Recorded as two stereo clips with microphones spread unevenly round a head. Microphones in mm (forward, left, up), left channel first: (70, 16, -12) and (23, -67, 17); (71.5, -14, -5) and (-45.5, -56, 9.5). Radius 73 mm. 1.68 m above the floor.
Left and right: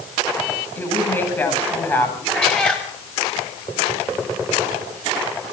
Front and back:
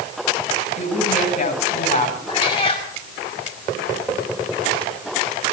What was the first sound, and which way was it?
A woman speaking, 10° right.